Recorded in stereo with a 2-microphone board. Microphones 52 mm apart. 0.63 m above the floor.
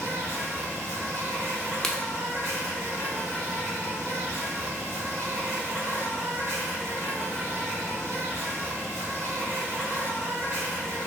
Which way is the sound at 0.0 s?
70° right (ahead or behind).